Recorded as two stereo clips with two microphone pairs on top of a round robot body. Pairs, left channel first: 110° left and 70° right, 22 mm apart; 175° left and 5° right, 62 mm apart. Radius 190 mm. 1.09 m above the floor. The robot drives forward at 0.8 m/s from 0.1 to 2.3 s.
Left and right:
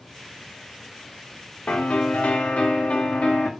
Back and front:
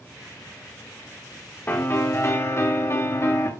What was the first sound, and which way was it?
A piano, 115° left.